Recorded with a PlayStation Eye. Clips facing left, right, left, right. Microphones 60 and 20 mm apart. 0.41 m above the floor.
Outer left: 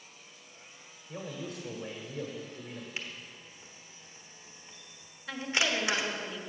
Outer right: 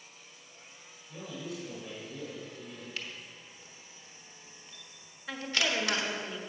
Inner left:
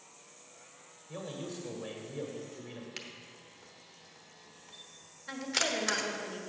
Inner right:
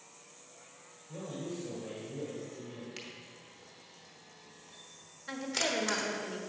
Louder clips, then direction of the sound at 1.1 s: Outer left 1 dB, even; 50° left (ahead or behind).